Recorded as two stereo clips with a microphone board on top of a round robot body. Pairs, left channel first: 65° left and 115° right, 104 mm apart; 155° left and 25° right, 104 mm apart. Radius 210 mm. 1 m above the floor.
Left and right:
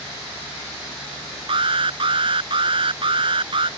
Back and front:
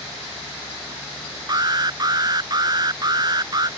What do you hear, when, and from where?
1.5 s an alarm: 75° right